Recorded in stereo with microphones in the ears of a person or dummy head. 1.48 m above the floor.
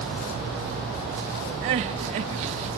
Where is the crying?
35° right (ahead or behind), 0.9 m.